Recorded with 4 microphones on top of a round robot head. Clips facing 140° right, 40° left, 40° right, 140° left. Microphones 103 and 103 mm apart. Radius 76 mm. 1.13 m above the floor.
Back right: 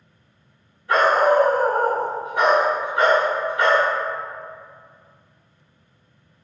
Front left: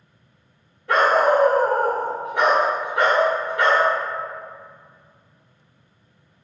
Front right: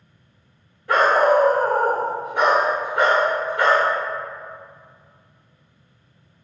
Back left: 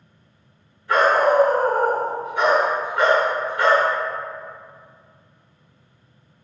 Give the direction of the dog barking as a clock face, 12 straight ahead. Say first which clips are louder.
Even, front right 1 dB; 12 o'clock.